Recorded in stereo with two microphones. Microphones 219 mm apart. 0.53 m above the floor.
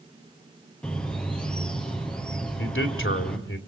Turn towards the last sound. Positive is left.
turn(degrees=65)  # may be behind; listen again after turning